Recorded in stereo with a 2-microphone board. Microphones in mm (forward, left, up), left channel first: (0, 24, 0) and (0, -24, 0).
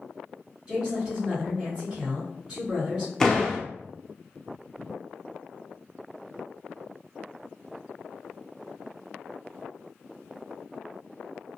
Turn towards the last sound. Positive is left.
turn(degrees=10)  # may be behind; listen again after turning